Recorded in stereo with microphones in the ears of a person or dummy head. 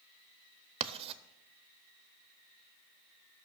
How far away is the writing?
About 0.5 m.